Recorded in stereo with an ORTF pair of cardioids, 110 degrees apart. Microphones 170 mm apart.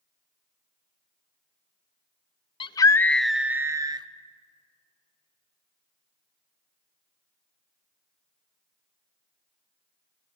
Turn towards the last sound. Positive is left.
turn(degrees=-25)